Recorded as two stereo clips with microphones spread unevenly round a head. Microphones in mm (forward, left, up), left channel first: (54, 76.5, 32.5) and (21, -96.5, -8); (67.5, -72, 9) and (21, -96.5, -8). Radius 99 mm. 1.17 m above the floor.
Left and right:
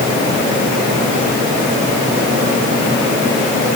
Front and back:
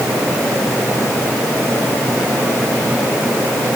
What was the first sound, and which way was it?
Only background noise.